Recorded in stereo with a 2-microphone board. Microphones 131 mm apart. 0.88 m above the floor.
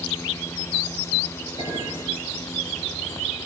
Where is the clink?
40° left (ahead or behind), 9.5 m.